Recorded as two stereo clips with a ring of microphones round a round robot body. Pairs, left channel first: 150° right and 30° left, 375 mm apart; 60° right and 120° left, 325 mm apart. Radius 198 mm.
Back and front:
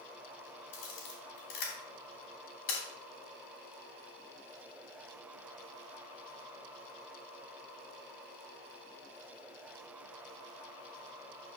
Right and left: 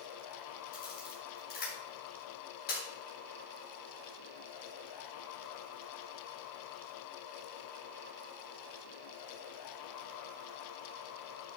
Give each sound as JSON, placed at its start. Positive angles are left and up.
{"t": 0.7, "sound": "a camera shutter", "azimuth_deg": -125, "distance_m": 3.0}